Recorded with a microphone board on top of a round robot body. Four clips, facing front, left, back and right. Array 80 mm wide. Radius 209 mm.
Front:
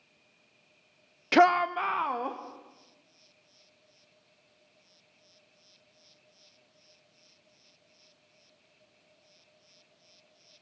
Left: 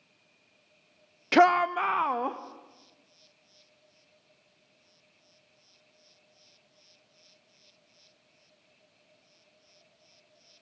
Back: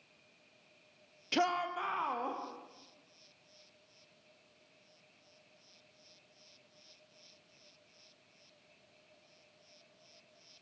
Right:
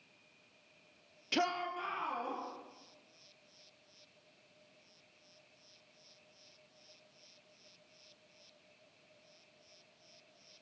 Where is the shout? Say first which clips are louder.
Left 15 dB, front 11 dB; 45° left, 0.6 m; by 2.4 s 75° left, 1.9 m.